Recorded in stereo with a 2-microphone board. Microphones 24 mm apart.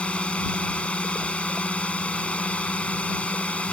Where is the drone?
65° left (ahead or behind); by 3.7 s 70° left (ahead or behind).